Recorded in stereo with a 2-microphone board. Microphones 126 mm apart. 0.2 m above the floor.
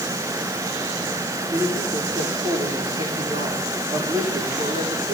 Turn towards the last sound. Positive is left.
turn(degrees=-65)  # may be behind; listen again after turning